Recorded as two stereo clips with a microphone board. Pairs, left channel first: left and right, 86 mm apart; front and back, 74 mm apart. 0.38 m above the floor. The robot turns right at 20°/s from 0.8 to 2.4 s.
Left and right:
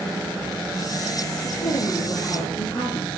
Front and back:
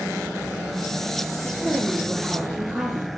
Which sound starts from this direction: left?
A woman speaking, at 1.4 s.